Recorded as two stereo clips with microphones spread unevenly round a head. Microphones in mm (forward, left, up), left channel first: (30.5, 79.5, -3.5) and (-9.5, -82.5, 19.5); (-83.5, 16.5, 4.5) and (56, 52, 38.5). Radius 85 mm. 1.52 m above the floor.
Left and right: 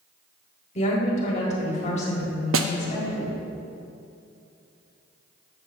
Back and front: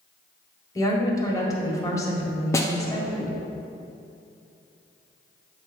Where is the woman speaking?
125° left, 1.6 m.